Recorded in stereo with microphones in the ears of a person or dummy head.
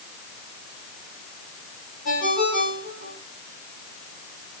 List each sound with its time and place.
2.0 s a ringtone: 40° left (ahead or behind), 3 m